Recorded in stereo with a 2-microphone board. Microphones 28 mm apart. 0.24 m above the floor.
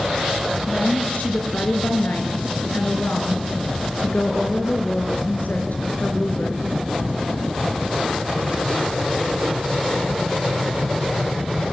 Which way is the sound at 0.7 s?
70° left (ahead or behind).